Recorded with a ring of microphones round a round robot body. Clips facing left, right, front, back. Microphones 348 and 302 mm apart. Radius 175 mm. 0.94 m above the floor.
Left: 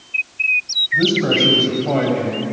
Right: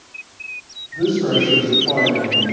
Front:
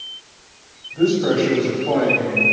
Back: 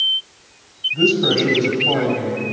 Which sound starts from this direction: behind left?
A man speaking, at 0.9 s.